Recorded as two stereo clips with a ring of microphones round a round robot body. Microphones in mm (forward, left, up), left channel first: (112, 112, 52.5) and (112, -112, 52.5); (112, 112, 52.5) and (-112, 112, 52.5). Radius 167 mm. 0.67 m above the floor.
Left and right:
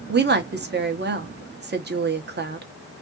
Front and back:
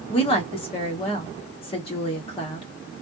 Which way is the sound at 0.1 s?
60° right.